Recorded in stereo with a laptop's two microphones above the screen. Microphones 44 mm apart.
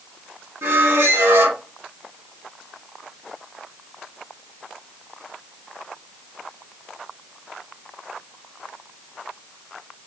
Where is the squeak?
65° right (ahead or behind), 0.7 m.